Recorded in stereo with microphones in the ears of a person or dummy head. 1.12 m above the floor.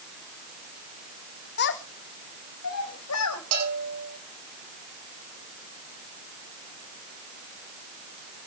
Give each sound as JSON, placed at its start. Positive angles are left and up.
{"t": 1.6, "sound": "a child speaking", "side_deg": 55, "distance_m": 1.4}
{"t": 3.5, "sound": "a bell", "side_deg": -85, "distance_m": 6.0}